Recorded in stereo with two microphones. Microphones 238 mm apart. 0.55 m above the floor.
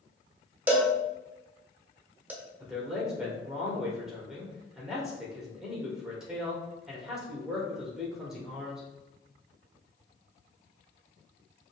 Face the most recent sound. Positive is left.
turn(degrees=0)  # may be behind; listen again after turning